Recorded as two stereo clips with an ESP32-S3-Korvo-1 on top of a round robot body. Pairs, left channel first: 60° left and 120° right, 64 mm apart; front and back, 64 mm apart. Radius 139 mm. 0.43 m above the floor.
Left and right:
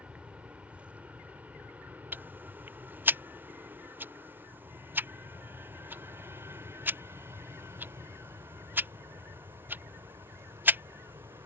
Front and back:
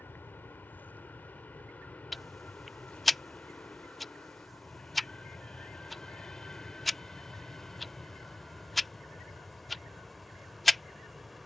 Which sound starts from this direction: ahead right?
An aircraft, at 0.0 s.